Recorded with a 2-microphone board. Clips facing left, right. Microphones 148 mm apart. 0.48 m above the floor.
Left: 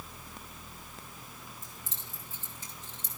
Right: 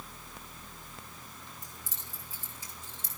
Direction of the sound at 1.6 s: 15° right (ahead or behind).